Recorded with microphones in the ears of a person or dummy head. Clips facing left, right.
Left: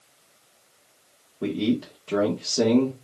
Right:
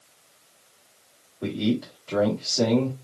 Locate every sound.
1.4 s a man speaking: 40° left (ahead or behind), 1.7 m